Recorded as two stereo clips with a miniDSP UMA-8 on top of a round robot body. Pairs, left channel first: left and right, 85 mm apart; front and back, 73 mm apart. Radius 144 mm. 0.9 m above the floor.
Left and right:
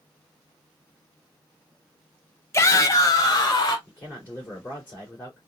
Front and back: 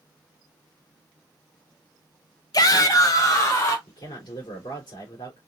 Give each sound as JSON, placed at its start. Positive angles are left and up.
{"t": 2.5, "sound": "a shout", "azimuth_deg": 35, "distance_m": 0.8}
{"t": 3.9, "sound": "a man speaking", "azimuth_deg": 25, "distance_m": 2.5}